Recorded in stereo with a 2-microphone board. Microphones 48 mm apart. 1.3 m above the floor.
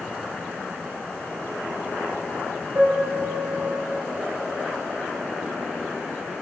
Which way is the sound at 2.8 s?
45° right (ahead or behind).